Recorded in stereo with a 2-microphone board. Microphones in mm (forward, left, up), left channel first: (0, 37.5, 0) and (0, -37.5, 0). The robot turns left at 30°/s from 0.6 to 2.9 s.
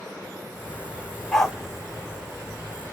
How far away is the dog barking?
About 1.3 m.